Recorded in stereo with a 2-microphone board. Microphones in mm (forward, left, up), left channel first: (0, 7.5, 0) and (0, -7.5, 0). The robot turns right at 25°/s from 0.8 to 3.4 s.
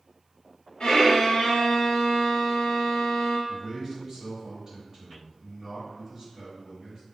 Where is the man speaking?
35° right (ahead or behind), 1.9 m.